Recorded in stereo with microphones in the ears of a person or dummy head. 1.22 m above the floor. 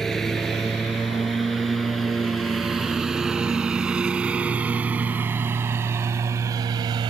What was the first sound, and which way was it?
A lawn mower, centre (ahead or behind).